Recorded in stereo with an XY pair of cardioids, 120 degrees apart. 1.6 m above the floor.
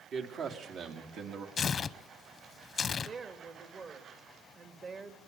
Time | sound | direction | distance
0.1 | a man speaking | 55° right | 3.5 m
1.6 | tearing paper | 40° left | 0.9 m
3.0 | a woman speaking | 40° right | 2.5 m